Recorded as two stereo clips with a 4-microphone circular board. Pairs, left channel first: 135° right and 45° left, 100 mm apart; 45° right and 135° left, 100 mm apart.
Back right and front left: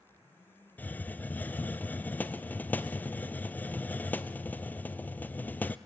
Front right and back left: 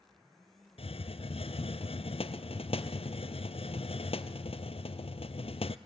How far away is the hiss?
About 0.7 m.